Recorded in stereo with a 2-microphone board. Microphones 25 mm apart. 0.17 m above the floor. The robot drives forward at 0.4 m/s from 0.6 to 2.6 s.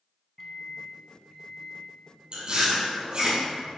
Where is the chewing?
45° right (ahead or behind), 2.5 m; by 3.4 s 40° right (ahead or behind), 2.5 m.